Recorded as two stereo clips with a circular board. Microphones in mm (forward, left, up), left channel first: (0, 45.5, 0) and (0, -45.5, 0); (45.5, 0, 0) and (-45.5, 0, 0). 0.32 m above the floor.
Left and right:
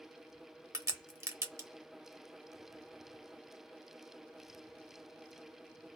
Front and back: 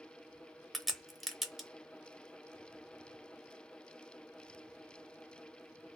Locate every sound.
0.7 s a crack: 90° right, 0.7 m